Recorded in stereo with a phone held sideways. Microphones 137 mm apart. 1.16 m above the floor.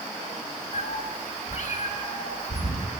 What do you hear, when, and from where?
0.7 s a cat meowing: 50° left (ahead or behind), 3 m; by 2.9 s 80° left, 4 m